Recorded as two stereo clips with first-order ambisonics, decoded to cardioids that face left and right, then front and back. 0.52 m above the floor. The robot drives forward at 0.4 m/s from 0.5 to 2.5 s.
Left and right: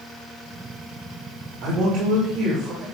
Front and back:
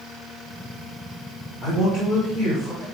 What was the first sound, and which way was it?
A man speaking, 95° right.